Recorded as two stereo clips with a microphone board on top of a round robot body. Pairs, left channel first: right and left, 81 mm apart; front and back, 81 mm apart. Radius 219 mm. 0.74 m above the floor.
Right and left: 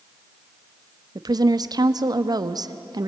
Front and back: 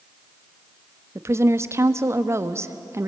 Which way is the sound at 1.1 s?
125° left.